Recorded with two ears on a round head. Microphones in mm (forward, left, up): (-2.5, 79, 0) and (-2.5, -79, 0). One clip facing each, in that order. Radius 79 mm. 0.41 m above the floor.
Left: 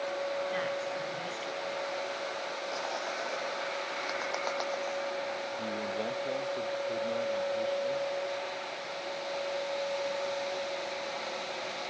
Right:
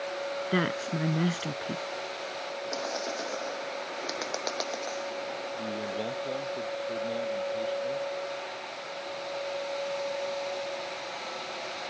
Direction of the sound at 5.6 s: 10° right (ahead or behind).